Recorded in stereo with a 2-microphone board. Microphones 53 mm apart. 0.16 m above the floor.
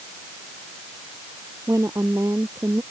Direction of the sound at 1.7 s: 70° right (ahead or behind).